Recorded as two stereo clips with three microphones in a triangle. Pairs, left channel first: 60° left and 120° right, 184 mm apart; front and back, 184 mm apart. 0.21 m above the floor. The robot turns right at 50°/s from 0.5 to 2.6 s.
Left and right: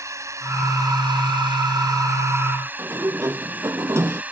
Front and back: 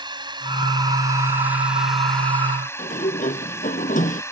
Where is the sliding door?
45° right.